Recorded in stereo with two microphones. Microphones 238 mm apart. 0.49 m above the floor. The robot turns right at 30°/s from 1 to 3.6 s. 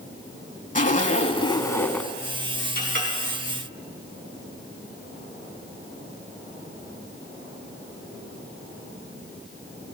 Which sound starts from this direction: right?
A clink, at 2.8 s.